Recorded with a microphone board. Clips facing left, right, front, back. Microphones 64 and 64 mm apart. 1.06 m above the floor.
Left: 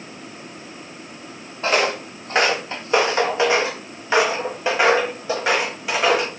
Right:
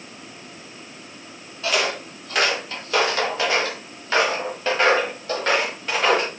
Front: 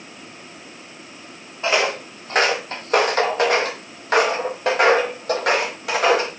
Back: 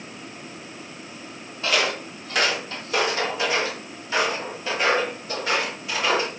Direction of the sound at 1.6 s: 55° left.